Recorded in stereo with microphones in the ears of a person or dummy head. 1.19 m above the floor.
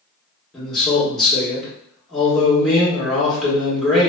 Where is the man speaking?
5° left (ahead or behind), 1.3 m.